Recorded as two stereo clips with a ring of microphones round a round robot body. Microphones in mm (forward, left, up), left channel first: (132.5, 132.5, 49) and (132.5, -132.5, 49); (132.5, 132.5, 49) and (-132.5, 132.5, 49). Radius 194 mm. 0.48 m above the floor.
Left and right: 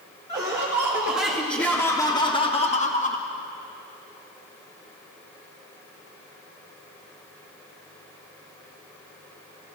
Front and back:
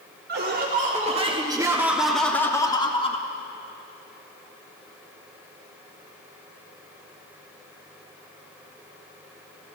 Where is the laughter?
155° right, 1.7 m; by 3.3 s 50° left, 1.6 m.